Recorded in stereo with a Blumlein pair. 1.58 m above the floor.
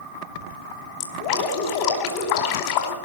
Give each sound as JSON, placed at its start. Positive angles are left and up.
{"t": 1.0, "sound": "dripping", "azimuth_deg": 45, "distance_m": 4.5}